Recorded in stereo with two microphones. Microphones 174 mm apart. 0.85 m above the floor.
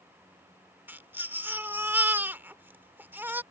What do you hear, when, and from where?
0.9 s a baby crying: 10° right (ahead or behind)